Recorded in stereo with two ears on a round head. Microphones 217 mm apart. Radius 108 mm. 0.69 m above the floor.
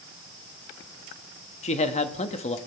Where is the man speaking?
30° left (ahead or behind), 1.2 m.